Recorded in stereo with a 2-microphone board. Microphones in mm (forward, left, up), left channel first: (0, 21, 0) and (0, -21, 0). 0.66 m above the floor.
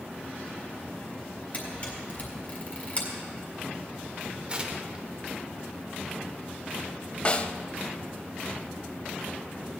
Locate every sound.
1.5 s a camera shutter: 35° left (ahead or behind), 4 m
4.5 s tearing paper: 25° right (ahead or behind), 1.2 m
7.2 s a snare drum: 30° left (ahead or behind), 0.6 m